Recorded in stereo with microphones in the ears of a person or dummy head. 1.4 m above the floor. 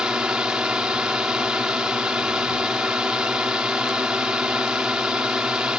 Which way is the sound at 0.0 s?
5° right (ahead or behind).